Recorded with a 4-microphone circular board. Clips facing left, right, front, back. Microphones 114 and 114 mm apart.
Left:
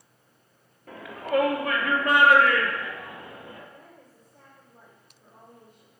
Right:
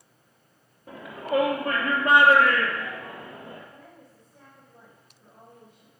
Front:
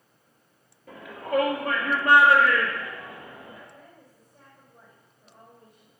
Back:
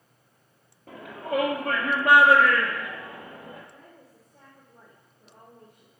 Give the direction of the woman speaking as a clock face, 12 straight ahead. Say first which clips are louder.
Right 1 dB, even; 6 o'clock.